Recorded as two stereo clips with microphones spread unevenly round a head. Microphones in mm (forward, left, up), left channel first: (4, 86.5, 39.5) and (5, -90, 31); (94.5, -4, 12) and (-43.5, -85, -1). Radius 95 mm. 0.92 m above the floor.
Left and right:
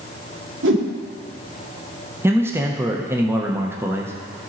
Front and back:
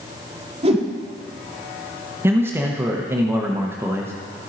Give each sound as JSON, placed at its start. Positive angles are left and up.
{"t": 0.6, "sound": "a whoosh", "azimuth_deg": -100, "distance_m": 1.6}
{"t": 2.2, "sound": "a man speaking", "azimuth_deg": -130, "distance_m": 0.9}